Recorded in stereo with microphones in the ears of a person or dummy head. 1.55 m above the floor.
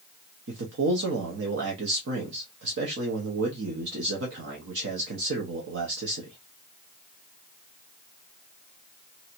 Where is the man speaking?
60° right (ahead or behind), 0.9 m.